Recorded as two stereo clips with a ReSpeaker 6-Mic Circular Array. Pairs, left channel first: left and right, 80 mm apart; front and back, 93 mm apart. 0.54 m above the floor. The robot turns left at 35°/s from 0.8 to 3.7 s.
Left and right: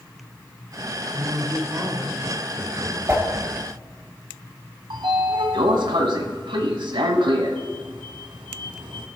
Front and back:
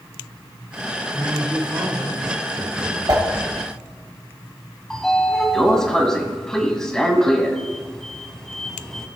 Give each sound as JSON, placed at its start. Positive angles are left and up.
{"t": 1.1, "sound": "a man speaking", "azimuth_deg": -130, "distance_m": 3.0}
{"t": 3.1, "sound": "a whoosh", "azimuth_deg": -145, "distance_m": 3.0}
{"t": 4.9, "sound": "a sliding door", "azimuth_deg": -85, "distance_m": 1.2}